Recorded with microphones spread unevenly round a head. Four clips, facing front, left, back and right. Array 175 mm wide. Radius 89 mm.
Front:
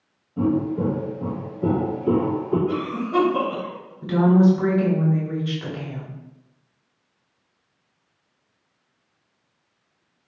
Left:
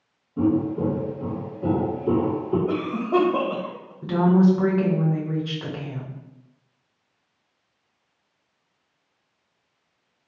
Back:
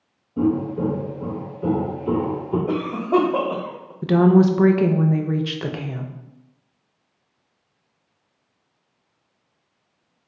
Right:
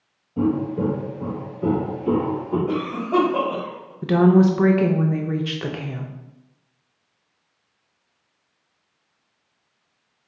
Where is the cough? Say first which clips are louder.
Even, back 4 dB; 175° left, 0.9 m.